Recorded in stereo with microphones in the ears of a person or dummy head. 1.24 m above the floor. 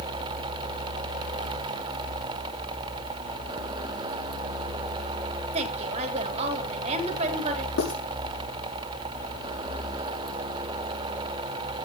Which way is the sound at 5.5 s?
35° right (ahead or behind).